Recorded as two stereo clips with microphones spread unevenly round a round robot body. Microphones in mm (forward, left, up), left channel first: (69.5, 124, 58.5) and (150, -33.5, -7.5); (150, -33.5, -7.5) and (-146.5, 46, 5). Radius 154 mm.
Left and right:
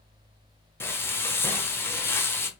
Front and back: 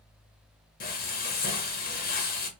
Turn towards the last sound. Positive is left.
turn(degrees=15)